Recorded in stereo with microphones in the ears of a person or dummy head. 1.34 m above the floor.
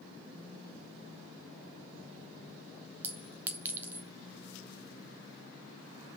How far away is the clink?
About 0.7 m.